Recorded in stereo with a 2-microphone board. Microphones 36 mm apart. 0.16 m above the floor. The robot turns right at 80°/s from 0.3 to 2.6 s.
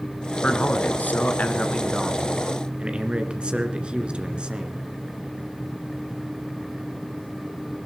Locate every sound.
0.4 s a man speaking: 45° left, 1.9 m; by 4.8 s 140° right, 1.9 m